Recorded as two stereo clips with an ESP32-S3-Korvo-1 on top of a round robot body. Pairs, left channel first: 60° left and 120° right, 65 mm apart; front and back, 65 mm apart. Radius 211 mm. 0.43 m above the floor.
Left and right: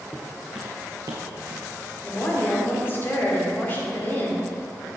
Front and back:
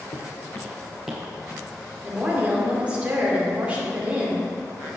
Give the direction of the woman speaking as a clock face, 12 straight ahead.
8 o'clock.